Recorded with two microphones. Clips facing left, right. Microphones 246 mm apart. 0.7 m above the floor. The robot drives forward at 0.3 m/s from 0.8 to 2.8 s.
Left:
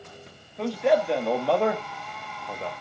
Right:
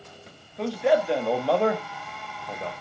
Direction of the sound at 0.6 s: Centre (ahead or behind).